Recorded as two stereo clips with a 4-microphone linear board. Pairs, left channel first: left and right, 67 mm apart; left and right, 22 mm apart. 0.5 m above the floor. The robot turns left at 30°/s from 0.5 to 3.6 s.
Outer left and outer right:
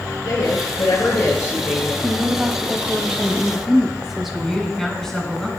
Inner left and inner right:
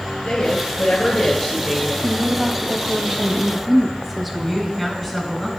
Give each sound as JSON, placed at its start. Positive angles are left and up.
{"t": 0.2, "sound": "a woman speaking", "azimuth_deg": 70, "distance_m": 5.5}
{"t": 2.0, "sound": "a woman speaking", "side_deg": -20, "distance_m": 1.0}
{"t": 4.3, "sound": "a woman speaking", "side_deg": 5, "distance_m": 5.0}